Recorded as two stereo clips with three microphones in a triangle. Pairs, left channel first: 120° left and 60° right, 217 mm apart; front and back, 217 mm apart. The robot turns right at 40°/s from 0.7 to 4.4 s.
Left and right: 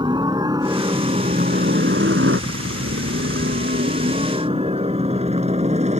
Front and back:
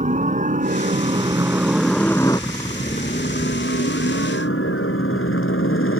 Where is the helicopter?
130° right; by 6.0 s 5° right.